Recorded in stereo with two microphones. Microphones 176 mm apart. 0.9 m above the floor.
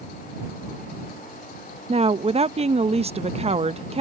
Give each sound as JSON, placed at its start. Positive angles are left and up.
{"t": 1.9, "sound": "a woman speaking", "side_deg": -35}